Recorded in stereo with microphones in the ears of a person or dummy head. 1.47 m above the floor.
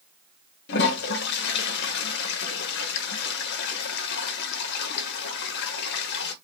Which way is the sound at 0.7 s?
60° left (ahead or behind).